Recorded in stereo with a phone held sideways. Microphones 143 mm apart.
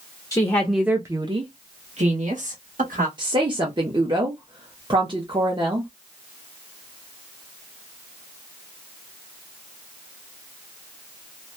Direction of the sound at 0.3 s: 25° left (ahead or behind).